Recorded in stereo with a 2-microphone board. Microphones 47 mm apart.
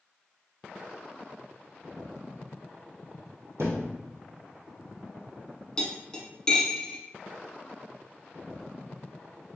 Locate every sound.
3.6 s a thud: 75° right (ahead or behind), 1.2 m
5.8 s cutlery clinking: 15° left (ahead or behind), 0.8 m